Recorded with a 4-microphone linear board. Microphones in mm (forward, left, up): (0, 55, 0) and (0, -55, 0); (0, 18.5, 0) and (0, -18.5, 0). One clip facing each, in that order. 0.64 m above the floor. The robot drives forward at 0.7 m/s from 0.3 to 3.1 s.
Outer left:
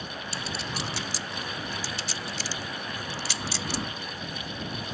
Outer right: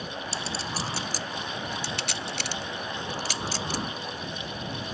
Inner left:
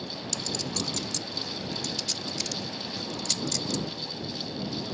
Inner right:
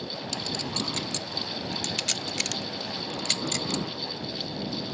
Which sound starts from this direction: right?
A clink, at 0.3 s.